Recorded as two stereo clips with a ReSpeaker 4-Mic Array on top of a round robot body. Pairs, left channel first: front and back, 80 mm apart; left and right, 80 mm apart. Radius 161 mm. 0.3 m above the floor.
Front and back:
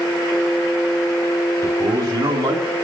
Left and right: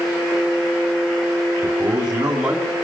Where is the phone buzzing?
No phone buzzing in this recording.